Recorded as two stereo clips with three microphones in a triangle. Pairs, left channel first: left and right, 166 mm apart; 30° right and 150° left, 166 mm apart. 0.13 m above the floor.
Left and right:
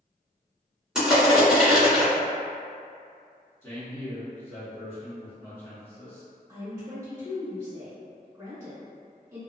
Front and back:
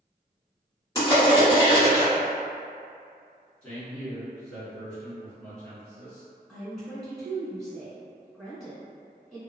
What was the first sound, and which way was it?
Crushing, 10° right.